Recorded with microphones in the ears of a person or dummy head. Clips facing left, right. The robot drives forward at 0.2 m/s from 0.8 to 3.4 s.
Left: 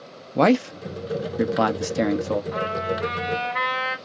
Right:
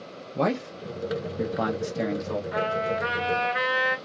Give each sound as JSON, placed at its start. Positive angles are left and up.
{"t": 0.3, "sound": "a man speaking", "side_deg": 80, "distance_m": 0.5}
{"t": 2.5, "sound": "a trumpet", "side_deg": -10, "distance_m": 1.3}